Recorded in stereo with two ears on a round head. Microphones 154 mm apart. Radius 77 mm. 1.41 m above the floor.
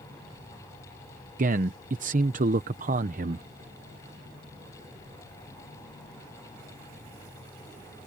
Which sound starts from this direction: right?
A man speaking, at 1.4 s.